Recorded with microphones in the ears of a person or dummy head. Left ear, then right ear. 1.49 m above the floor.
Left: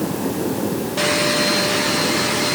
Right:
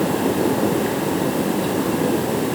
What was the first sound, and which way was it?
Only background noise.